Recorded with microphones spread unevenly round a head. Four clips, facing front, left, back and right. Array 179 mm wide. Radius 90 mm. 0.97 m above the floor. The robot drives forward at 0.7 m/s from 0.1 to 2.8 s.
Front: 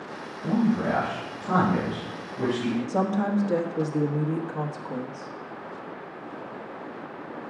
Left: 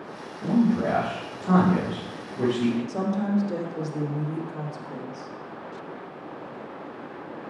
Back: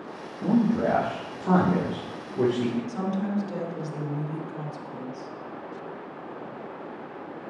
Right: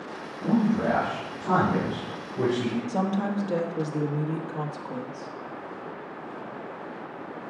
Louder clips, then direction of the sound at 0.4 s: Left 1 dB, back 1 dB; 170° right.